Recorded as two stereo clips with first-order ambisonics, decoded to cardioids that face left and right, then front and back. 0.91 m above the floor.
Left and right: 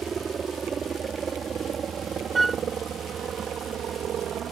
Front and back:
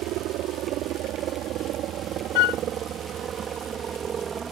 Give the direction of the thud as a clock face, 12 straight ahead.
No thud in this recording.